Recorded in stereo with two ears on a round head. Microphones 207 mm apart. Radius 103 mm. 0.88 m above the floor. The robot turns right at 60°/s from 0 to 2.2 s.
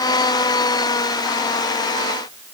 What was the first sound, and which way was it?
Only background noise.